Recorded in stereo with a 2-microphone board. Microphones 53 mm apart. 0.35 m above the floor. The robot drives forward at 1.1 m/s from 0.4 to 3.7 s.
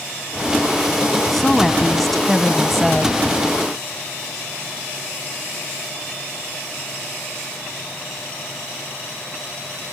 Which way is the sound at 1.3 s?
5° left (ahead or behind).